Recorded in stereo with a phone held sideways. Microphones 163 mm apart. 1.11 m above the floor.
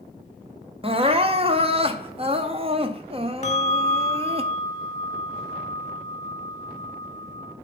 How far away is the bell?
About 1.0 m.